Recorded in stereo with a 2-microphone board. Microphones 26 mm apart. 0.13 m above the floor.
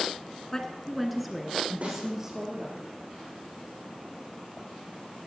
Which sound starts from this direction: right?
A snare drum, at 1.8 s.